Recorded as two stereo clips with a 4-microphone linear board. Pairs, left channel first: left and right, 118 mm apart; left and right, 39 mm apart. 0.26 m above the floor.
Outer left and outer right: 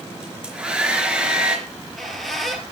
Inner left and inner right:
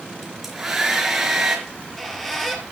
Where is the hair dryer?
10° right (ahead or behind), 4 m.